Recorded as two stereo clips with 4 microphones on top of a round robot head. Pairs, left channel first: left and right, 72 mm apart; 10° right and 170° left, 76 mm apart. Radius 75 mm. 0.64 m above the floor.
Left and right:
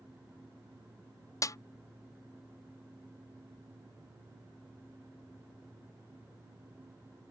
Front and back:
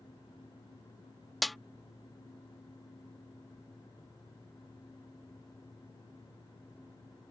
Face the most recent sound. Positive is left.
turn(degrees=80)